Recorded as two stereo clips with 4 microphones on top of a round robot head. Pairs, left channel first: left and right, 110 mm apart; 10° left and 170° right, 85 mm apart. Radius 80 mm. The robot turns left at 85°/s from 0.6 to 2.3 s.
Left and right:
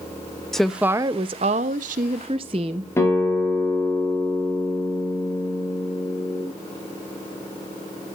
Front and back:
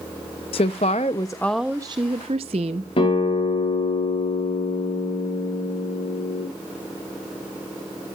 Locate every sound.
0.5 s a woman speaking: 5° left, 0.6 m; by 2.9 s 140° right, 0.6 m
3.0 s a guitar: 25° left, 5 m